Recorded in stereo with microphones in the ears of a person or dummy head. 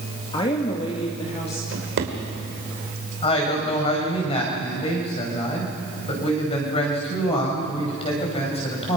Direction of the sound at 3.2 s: 30° left (ahead or behind).